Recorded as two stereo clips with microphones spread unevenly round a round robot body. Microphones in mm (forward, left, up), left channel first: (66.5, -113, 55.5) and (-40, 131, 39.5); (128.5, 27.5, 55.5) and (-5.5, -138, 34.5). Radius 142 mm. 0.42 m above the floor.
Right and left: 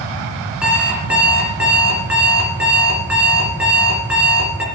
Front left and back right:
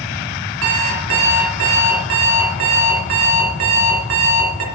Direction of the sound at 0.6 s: 160° right.